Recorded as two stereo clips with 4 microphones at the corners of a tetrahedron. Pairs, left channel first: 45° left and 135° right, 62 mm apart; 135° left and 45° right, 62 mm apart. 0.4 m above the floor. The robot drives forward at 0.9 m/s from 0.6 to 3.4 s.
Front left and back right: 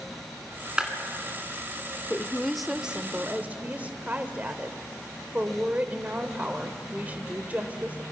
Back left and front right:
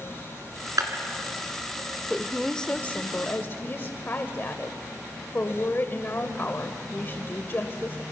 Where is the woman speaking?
20° left, 0.8 m; by 8.0 s 175° left, 1.1 m.